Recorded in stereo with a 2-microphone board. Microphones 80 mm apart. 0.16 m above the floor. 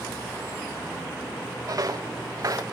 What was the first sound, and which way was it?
Footsteps, 45° right (ahead or behind).